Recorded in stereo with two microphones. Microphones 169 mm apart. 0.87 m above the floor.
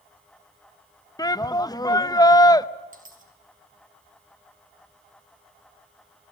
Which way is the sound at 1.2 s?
25° left (ahead or behind).